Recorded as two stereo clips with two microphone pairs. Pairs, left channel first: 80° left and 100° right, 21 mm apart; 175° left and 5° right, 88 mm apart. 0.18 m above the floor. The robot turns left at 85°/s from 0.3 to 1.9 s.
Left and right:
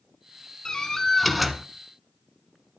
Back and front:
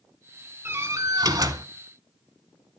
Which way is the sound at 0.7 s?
50° left.